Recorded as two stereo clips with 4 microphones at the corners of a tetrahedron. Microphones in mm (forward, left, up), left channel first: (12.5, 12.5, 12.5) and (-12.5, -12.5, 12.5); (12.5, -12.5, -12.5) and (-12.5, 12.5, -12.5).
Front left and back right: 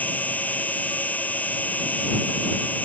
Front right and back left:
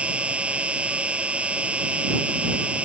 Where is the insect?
80° left.